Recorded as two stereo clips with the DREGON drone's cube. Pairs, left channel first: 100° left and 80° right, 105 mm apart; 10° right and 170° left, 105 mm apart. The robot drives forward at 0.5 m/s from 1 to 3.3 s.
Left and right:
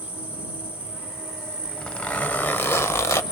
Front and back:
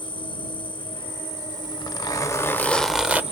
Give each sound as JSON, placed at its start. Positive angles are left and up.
{"t": 0.0, "sound": "an insect", "azimuth_deg": -10, "distance_m": 2.0}
{"t": 1.6, "sound": "a zipper", "azimuth_deg": 20, "distance_m": 0.9}